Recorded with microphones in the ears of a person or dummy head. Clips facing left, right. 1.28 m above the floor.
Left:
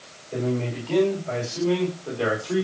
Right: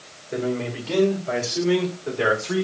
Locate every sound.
0.3 s a man speaking: 20° right (ahead or behind), 5.5 m; by 2.6 s 30° right (ahead or behind), 4.5 m